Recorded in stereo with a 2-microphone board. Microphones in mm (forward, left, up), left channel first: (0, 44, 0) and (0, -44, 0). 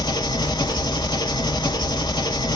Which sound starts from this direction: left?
An engine running, at 0.0 s.